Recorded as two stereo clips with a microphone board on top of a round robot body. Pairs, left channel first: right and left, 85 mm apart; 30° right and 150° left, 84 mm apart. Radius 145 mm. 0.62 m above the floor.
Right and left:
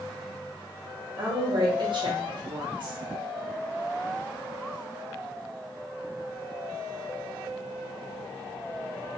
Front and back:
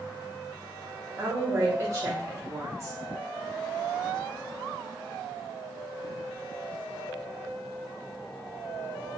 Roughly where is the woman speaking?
Left.